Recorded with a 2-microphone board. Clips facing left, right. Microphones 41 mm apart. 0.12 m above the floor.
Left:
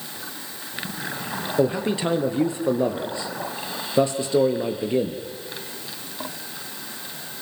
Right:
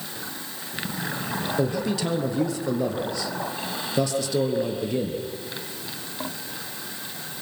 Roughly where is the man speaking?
Left.